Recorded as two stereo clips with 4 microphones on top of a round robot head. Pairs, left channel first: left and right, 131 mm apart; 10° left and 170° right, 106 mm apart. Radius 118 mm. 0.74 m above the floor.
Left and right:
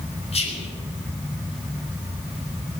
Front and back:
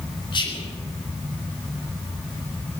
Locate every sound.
0.3 s whispering: 50° left, 5.5 m